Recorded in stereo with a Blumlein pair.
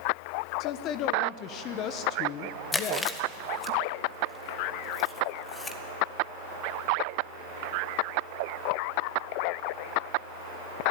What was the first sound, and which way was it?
A woman speaking, 35° left.